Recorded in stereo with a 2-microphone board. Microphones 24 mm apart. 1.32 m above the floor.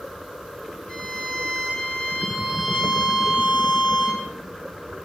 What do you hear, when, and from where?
0.9 s a violin: 50° left (ahead or behind), 6.5 m